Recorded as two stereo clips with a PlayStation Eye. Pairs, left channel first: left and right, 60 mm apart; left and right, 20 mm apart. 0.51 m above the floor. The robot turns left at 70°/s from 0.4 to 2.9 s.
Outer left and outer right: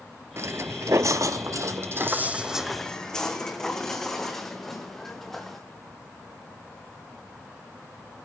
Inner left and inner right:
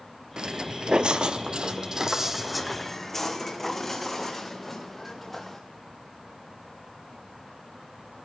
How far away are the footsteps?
About 0.7 m.